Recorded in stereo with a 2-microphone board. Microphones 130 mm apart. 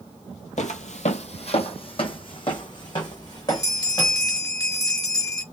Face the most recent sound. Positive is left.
turn(degrees=30)  # may be behind; listen again after turning